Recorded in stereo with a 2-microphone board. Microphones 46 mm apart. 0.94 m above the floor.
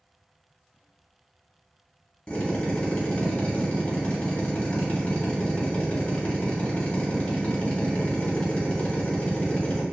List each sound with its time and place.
2.3 s a drill: 25° left (ahead or behind), 1.2 m